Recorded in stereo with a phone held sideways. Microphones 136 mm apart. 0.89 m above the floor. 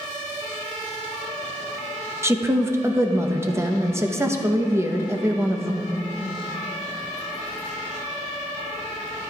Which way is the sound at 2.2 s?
20° right (ahead or behind).